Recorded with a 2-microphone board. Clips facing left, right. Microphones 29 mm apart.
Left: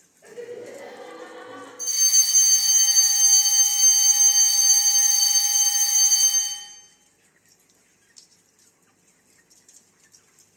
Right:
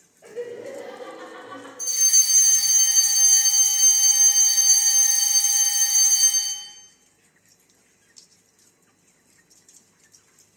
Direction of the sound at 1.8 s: Centre (ahead or behind).